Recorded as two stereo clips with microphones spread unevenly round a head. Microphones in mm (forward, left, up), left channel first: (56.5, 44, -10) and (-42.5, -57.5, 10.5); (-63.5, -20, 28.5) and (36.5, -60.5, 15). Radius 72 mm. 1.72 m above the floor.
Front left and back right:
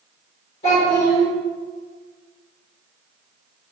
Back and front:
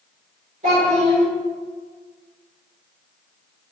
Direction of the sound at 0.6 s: 5° left.